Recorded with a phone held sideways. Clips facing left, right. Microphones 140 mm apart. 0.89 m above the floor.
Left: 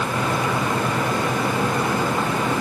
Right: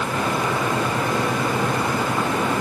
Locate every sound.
Only background noise.